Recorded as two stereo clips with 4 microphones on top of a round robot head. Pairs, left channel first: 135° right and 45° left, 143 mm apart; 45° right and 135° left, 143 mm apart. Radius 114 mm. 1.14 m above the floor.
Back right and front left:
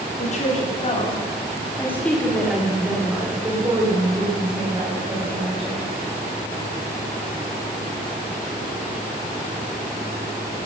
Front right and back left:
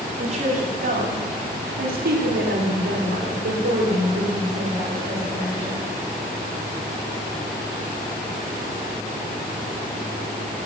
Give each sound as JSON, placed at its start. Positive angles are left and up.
{"t": 0.2, "sound": "a woman speaking", "azimuth_deg": -175, "distance_m": 3.5}